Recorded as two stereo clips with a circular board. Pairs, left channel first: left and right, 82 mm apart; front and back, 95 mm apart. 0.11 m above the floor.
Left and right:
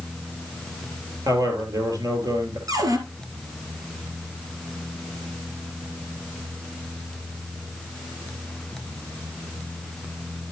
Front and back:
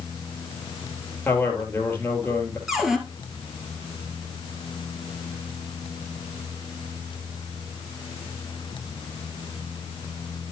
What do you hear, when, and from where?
1.2 s a man speaking: 65° right, 3 m
2.7 s a cupboard door: 95° right, 1.7 m